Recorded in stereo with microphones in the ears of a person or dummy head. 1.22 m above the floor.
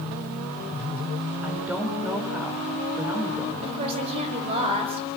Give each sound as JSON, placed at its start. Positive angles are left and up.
{"t": 1.4, "sound": "a woman speaking", "side_deg": -5, "distance_m": 5.5}
{"t": 3.6, "sound": "a woman speaking", "side_deg": -30, "distance_m": 6.5}